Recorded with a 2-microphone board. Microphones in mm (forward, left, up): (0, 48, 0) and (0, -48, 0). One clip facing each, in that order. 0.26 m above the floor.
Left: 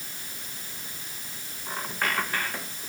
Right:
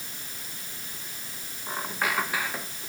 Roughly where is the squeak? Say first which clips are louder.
Right 1 dB; centre.